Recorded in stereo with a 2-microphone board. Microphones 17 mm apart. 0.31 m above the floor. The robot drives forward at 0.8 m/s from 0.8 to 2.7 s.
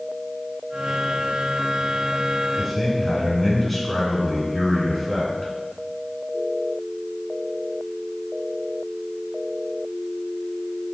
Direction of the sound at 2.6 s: 15° left (ahead or behind).